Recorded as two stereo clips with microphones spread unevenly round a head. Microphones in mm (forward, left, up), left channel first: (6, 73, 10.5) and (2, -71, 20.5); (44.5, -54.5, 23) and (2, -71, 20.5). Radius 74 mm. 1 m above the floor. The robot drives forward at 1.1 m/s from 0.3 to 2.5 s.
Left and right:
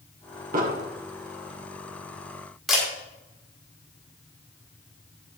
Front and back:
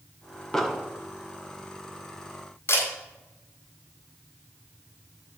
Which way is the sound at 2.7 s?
5° right.